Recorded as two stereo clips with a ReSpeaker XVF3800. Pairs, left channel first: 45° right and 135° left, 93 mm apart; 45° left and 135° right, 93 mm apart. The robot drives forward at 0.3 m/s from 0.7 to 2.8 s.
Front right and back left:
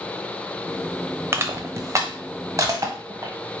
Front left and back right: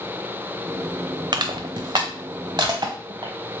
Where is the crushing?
165° right, 0.5 m; by 3.3 s 175° right, 1.0 m.